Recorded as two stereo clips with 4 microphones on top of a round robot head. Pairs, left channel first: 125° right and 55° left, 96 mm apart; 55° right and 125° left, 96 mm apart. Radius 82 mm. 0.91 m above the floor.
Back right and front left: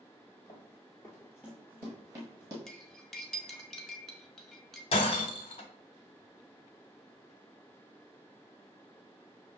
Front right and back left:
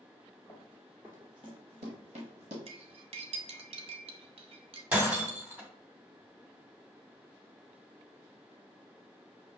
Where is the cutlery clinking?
150° left, 0.6 m.